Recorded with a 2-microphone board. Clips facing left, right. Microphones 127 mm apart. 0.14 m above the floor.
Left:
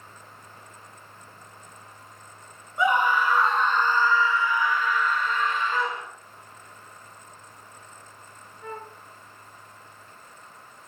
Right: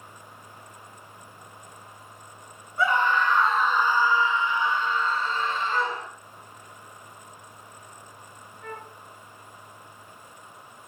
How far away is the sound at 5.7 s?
About 0.9 m.